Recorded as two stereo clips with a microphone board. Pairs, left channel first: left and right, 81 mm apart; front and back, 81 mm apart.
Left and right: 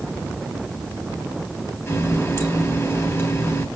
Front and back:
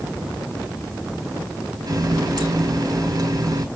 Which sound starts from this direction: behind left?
A running tap, at 1.9 s.